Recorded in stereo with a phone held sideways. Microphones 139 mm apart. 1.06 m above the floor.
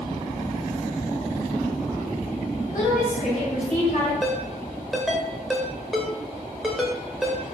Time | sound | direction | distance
2.7 | a woman speaking | 70° left (ahead or behind) | 4 m
4.2 | a ringtone | centre (ahead or behind) | 1.5 m